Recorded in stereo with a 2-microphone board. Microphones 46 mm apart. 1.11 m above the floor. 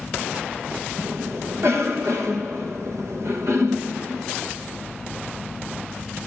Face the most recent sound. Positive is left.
turn(degrees=-65)  # may be behind; listen again after turning